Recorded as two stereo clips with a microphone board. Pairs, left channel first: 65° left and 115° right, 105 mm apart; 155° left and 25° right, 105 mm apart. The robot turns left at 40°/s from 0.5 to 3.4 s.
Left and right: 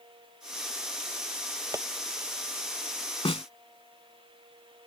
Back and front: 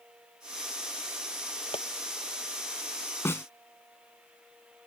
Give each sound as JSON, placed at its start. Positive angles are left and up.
{"t": 1.7, "sound": "tapping", "azimuth_deg": -170}
{"t": 3.2, "sound": "a snare drum", "azimuth_deg": 95}